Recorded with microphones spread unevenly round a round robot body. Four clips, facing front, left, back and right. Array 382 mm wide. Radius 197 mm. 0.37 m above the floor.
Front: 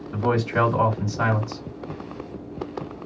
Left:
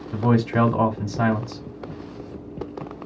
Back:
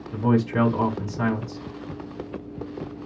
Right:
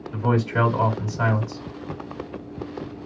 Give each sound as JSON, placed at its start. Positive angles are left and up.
{"t": 0.1, "sound": "a man speaking", "azimuth_deg": 110, "distance_m": 2.5}